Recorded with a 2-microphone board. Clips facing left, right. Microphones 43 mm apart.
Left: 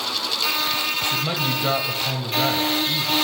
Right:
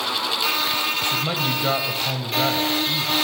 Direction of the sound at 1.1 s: 5° right (ahead or behind).